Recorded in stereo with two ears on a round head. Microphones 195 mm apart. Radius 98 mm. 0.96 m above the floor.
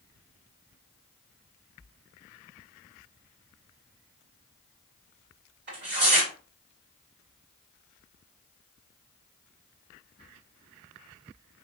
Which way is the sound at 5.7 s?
50° right (ahead or behind).